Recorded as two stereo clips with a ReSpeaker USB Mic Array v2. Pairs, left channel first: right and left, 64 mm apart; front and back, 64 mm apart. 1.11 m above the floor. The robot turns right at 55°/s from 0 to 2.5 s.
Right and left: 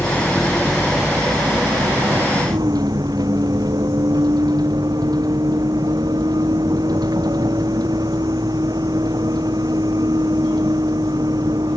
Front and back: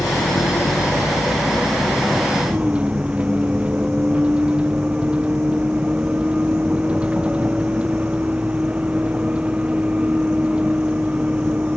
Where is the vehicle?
30° right; by 11.8 s 105° left.